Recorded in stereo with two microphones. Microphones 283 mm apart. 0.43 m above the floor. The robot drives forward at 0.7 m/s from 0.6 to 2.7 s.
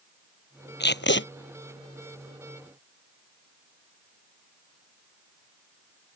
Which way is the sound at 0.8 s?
40° left (ahead or behind).